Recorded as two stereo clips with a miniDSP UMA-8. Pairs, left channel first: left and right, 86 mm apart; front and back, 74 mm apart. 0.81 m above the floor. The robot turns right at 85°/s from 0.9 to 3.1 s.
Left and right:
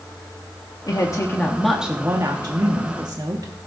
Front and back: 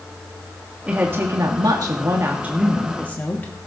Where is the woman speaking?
110° left, 1.3 m; by 3.5 s 60° right, 1.3 m.